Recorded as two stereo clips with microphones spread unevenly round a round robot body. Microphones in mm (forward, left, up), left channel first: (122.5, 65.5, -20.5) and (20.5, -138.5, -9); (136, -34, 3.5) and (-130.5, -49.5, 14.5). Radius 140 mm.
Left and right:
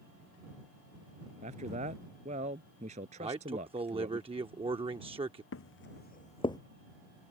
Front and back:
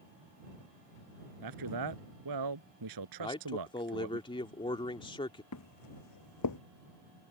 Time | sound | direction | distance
1.4 | a man speaking | 175° left | ?
3.2 | a man speaking | 60° right | ?
5.5 | footsteps | 40° left | ?